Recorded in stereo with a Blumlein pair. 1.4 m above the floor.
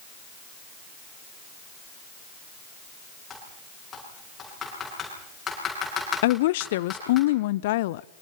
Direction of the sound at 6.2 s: 55° left.